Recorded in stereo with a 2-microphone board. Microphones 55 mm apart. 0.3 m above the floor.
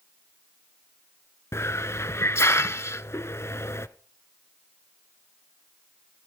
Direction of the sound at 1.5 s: 60° left (ahead or behind).